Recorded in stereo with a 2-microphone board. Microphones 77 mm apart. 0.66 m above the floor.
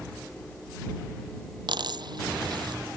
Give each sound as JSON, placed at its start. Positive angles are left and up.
{"t": 1.7, "sound": "a dropped coin", "side_deg": -70}